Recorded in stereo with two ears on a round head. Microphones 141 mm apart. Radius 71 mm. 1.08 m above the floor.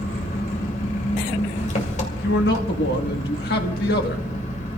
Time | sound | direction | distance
0.0 | an engine running | 45° left (ahead or behind) | 2.5 m
2.2 | a man speaking | 65° left (ahead or behind) | 1.8 m